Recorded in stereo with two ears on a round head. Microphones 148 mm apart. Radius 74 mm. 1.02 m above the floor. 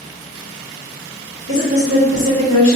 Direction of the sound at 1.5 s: 80° left.